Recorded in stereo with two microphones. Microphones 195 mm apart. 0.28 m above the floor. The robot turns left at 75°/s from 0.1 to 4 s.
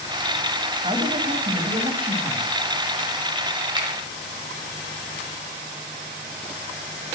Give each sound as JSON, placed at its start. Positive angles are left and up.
{"t": 0.8, "sound": "a man speaking", "azimuth_deg": -55, "distance_m": 1.8}
{"t": 3.8, "sound": "a finger snap", "side_deg": -25, "distance_m": 1.4}